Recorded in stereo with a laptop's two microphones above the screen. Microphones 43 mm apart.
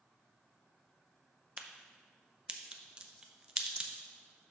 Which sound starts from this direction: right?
A crack, at 1.6 s.